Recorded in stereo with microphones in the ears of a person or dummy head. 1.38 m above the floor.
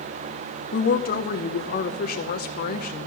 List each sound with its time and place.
0.7 s a woman speaking: 55° left (ahead or behind), 0.9 m